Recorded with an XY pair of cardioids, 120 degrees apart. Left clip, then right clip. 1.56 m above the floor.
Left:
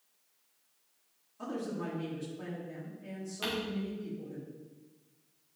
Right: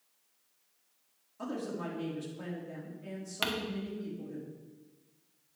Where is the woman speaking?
25° right, 4 m.